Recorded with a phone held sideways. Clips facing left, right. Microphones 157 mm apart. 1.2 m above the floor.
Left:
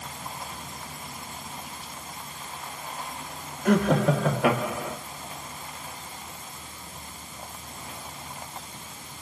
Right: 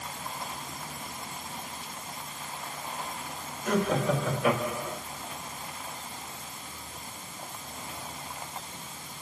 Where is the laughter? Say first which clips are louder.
Left 5 dB; 70° left (ahead or behind), 2.5 m; by 5.0 s 85° left, 2 m.